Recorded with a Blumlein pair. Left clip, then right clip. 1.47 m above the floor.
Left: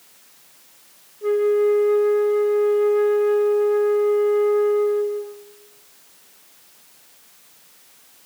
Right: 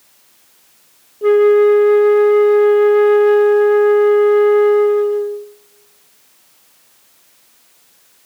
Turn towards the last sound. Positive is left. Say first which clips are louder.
# right 8 dB
turn(degrees=-30)